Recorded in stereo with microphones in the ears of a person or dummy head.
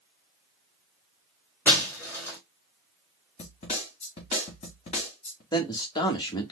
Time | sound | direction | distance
1.6 | breaking glass | 10° left (ahead or behind) | 2.5 m
3.4 | a snare drum | 30° left (ahead or behind) | 2 m
5.5 | a man speaking | 20° left (ahead or behind) | 1.1 m